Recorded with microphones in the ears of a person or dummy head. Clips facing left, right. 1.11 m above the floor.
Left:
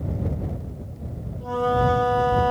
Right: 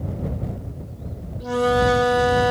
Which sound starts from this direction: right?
A flute, at 1.4 s.